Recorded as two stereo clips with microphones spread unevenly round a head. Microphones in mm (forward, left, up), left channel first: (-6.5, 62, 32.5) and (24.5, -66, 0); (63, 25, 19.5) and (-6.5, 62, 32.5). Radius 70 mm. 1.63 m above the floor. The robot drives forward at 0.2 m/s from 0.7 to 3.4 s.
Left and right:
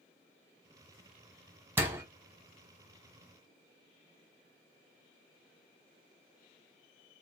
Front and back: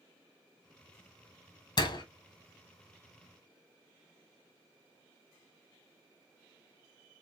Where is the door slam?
5° left, 1.0 m.